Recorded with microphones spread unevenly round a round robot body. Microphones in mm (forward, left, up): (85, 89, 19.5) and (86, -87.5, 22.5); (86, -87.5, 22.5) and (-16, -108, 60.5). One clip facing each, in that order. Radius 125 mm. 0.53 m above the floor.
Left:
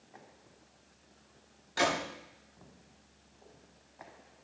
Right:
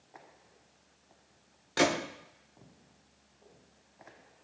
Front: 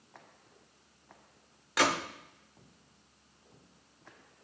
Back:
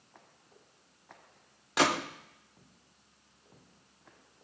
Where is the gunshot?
95° right, 2.0 m.